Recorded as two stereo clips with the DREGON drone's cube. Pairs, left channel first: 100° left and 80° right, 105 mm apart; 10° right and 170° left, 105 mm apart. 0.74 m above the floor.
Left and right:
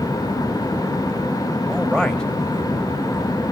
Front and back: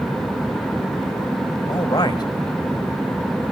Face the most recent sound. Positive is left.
turn(degrees=20)